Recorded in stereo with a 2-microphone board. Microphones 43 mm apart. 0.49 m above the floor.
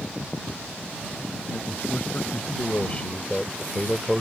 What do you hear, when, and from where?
1.5 s a man speaking: 55° left (ahead or behind); by 4.2 s 5° right (ahead or behind)